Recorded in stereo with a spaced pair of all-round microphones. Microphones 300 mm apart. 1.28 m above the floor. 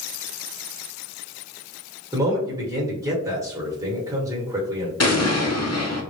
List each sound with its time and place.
2.1 s a man speaking: 10° right (ahead or behind), 1.1 m
5.0 s an explosion: 55° left (ahead or behind), 0.6 m